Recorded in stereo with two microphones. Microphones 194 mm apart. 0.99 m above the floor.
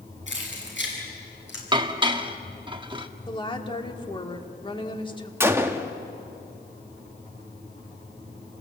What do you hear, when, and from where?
0.3 s keys jangling: 80° left, 8 m; by 1.6 s 85° left, 6.5 m
1.7 s dishes clattering: 25° right (ahead or behind), 1.1 m
3.3 s a woman speaking: 25° left (ahead or behind), 1.9 m
5.4 s a gunshot: 10° right (ahead or behind), 1.2 m